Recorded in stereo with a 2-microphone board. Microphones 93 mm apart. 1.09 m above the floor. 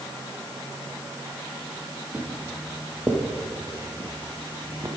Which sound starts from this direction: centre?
Footsteps, at 2.1 s.